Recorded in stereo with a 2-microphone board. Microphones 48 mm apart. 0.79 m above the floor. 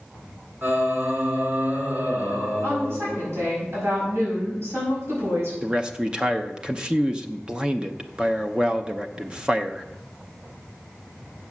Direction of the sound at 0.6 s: 60° right (ahead or behind).